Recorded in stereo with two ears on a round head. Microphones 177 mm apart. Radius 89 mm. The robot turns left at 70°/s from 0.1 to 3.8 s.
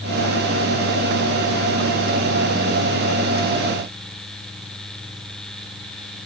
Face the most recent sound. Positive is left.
No sound to turn to.